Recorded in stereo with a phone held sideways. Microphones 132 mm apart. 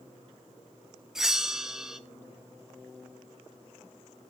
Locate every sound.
1.1 s a bell: 5° right (ahead or behind), 0.7 m